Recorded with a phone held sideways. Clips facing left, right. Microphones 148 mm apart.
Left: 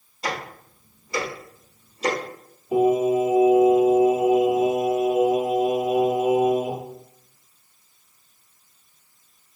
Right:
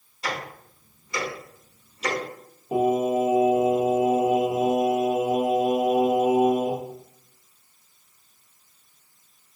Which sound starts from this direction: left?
Ticking, at 0.2 s.